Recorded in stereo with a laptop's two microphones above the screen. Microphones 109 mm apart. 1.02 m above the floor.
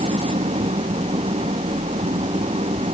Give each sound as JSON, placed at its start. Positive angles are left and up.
{"t": 0.0, "sound": "an engine running", "side_deg": -70}